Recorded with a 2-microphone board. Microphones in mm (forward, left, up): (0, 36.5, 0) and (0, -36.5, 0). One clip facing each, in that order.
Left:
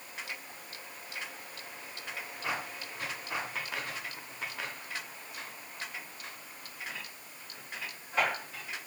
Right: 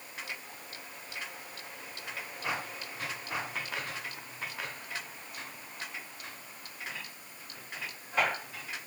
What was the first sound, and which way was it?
Only background noise.